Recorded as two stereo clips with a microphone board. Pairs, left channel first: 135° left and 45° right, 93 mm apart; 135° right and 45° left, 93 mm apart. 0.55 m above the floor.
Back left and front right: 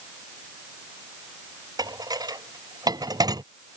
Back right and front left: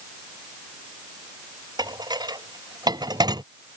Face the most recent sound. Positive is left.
turn(degrees=0)